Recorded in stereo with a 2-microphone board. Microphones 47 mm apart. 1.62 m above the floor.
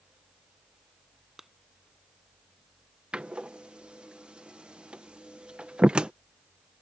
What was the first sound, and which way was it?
A clap, 5° right (ahead or behind).